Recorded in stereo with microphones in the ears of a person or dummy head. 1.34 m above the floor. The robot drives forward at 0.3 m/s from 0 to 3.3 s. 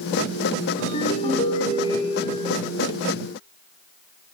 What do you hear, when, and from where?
0.8 s a ringtone: 35° left (ahead or behind), 1.8 m; by 2.5 s 30° left (ahead or behind), 2 m